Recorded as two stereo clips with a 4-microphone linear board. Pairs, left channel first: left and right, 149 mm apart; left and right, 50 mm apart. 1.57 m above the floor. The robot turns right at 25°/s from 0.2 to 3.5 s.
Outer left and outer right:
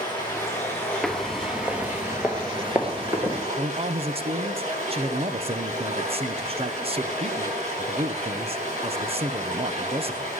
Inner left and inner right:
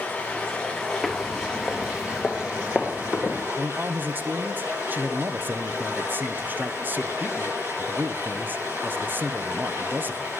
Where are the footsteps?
Centre (ahead or behind), 1.6 m; by 3.5 s 25° right (ahead or behind), 1.7 m.